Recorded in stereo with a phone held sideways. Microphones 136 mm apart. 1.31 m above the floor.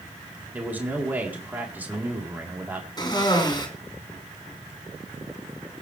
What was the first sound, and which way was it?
A man speaking, 15° right (ahead or behind).